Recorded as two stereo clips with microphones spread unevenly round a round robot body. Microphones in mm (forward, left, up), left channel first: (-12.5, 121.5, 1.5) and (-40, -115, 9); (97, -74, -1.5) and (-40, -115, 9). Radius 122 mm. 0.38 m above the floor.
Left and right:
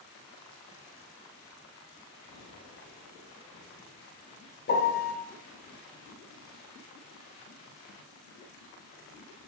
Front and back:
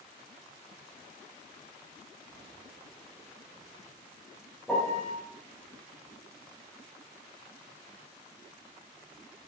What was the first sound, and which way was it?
A piano, 100° left.